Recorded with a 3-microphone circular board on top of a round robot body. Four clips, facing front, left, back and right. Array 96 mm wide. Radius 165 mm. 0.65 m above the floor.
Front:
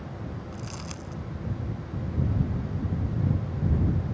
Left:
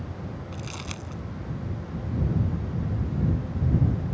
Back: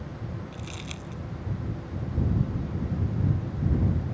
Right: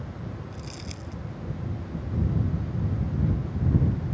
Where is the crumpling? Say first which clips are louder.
Left 3 dB, front 1 dB; 60° left.